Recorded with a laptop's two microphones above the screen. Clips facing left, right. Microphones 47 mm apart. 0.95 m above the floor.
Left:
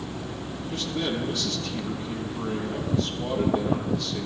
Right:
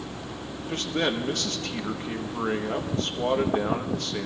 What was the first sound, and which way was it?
A man speaking, 50° right (ahead or behind).